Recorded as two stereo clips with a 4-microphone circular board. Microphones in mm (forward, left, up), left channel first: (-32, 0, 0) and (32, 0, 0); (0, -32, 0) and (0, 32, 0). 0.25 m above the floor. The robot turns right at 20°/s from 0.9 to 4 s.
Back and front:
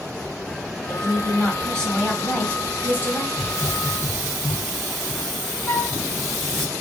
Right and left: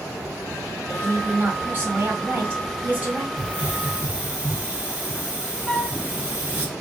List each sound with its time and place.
0.9 s a woman speaking: 100° left, 1.9 m; by 3.3 s 145° left, 1.9 m
3.4 s a hiss: 70° left, 1.1 m; by 6.7 s 85° left, 1.1 m
5.7 s a flute: 175° right, 2.0 m